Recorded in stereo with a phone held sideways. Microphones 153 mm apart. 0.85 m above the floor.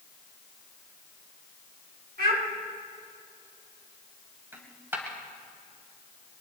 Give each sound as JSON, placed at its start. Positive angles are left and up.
{"t": 2.2, "sound": "a child speaking", "side_deg": -75, "distance_m": 4.5}
{"t": 4.5, "sound": "a dropped coin", "side_deg": -15, "distance_m": 2.0}